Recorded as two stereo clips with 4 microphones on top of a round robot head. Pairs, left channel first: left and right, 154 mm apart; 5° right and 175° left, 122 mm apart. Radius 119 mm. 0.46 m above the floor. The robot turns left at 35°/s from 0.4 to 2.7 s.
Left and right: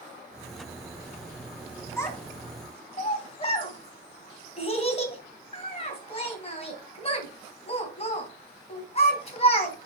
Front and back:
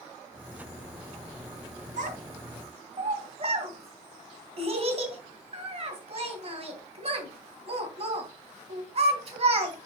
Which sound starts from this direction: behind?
A child speaking, at 2.0 s.